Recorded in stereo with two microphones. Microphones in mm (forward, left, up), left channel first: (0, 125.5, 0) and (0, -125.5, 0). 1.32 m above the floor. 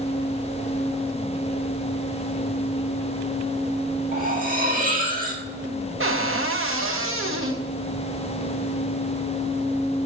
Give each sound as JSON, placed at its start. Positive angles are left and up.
{"t": 4.1, "sound": "cutlery clinking", "side_deg": -35, "distance_m": 1.4}
{"t": 6.0, "sound": "a cupboard door", "side_deg": -55, "distance_m": 0.8}